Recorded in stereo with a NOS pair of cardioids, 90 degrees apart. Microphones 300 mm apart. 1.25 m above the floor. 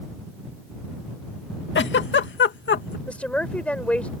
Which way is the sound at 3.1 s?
5° left.